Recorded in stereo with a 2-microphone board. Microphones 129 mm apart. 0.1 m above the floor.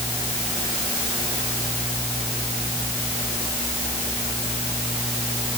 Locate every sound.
Only background noise.